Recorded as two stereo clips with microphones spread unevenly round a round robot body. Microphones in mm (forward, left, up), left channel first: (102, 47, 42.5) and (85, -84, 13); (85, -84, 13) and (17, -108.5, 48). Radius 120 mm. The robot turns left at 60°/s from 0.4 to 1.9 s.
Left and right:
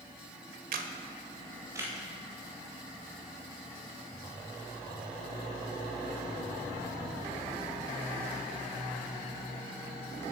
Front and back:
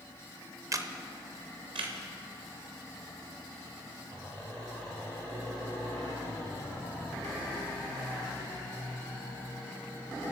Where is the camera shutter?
110° right, 0.8 m; by 1.9 s 175° left, 0.8 m.